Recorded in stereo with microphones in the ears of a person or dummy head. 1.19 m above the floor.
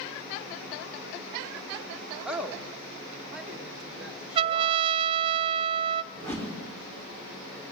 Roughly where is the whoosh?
Centre.